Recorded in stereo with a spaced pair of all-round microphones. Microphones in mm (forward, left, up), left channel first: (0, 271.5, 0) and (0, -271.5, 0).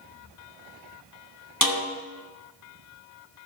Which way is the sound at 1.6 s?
35° left (ahead or behind).